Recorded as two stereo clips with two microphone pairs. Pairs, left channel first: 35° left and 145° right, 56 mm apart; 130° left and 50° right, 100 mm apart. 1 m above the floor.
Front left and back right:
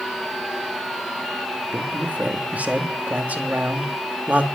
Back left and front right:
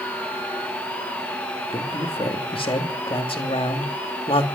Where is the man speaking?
155° left, 2.5 m.